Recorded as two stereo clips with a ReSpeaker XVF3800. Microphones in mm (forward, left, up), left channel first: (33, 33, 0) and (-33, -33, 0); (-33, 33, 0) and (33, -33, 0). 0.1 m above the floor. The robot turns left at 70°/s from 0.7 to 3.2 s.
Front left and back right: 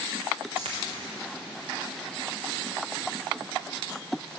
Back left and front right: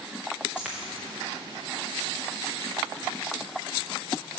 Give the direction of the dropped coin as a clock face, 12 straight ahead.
4 o'clock.